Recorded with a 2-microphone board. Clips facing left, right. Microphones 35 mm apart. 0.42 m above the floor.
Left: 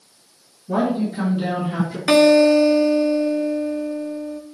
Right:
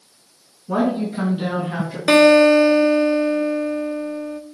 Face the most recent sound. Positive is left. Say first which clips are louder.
# right 2 dB
turn(degrees=-30)  # may be behind; listen again after turning